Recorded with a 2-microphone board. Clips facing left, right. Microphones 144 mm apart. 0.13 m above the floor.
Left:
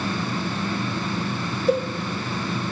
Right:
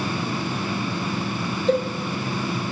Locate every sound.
1.7 s a cowbell: 10° left (ahead or behind), 0.7 m